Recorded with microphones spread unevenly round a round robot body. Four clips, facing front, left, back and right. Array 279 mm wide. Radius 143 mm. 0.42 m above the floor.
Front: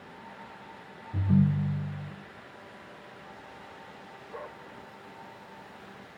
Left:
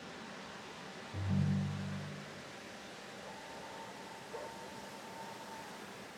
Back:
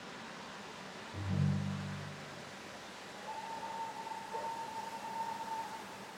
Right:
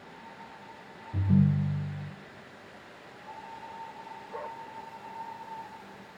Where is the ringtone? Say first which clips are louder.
Right 10 dB, front 11 dB; 45° right, 1.8 m.